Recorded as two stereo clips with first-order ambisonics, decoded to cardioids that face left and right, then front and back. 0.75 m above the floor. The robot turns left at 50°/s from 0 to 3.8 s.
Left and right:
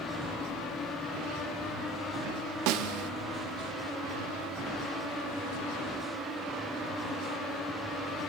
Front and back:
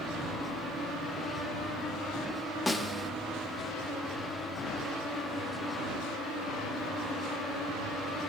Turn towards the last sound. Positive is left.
turn(degrees=-140)